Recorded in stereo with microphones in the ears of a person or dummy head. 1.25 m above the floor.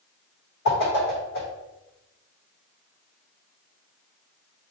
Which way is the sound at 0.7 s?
70° left (ahead or behind).